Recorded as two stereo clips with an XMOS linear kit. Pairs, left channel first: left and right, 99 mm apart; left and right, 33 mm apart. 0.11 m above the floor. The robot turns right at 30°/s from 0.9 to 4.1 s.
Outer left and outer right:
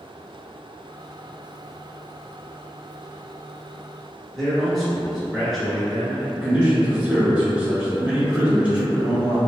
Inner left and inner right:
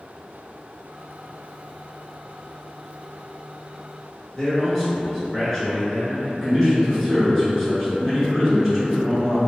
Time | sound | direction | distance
4.3 | a man speaking | centre (ahead or behind) | 1.2 m
6.3 | a man speaking | 10° right (ahead or behind) | 1.1 m